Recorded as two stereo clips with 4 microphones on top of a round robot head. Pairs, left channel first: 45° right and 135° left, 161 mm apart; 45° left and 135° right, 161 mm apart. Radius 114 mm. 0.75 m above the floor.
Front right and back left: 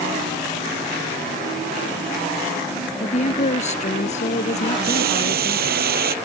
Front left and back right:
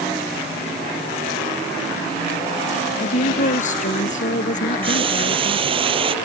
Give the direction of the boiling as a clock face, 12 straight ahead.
6 o'clock.